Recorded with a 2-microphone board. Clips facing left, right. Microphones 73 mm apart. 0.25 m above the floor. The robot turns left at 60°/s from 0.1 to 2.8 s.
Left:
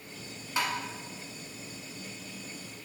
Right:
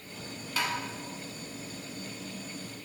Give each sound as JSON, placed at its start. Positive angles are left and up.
{"t": 0.6, "sound": "tapping", "side_deg": 20, "distance_m": 1.0}